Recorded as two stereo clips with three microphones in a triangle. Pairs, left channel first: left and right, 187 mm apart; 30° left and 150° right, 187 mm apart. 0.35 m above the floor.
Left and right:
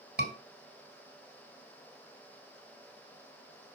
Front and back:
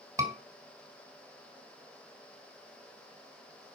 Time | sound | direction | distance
0.2 | a scream | 80° right | 3 m